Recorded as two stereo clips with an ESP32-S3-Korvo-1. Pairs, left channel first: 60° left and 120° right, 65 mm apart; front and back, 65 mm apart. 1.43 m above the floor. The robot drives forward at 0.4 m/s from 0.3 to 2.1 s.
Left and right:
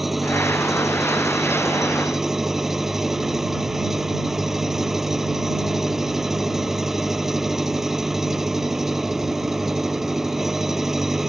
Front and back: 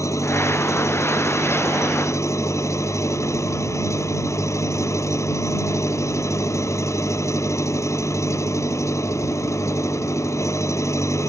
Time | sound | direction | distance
0.0 | an engine running | 35° right | ?